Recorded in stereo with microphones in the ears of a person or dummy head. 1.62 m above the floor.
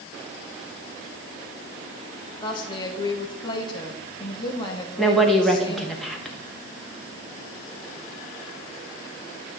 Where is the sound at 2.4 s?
20° left (ahead or behind), 1.1 m.